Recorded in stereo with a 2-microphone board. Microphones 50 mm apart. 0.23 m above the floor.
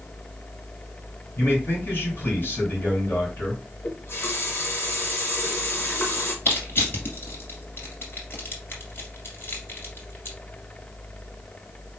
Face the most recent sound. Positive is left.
turn(degrees=50)  # may be behind; listen again after turning